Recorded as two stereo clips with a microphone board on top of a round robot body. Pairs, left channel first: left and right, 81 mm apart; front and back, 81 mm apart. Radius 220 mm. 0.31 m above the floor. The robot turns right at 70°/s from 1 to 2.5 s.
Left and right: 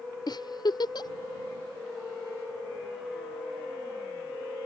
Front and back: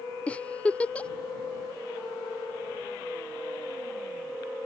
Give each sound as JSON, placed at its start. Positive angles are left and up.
{"t": 0.3, "sound": "a giggle", "azimuth_deg": 75}